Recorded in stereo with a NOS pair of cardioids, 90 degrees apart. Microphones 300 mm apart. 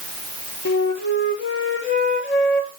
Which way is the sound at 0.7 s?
40° left.